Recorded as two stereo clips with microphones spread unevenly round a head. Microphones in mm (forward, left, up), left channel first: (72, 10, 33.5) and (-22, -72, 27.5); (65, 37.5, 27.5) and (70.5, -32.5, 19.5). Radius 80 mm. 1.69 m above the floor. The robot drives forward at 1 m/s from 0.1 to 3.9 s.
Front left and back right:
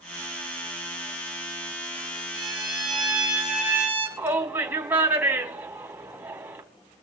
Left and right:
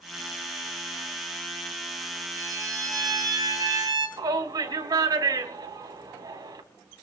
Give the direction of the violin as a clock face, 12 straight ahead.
2 o'clock.